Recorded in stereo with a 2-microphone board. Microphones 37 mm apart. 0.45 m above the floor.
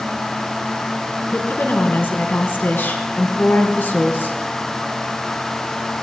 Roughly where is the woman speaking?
Left.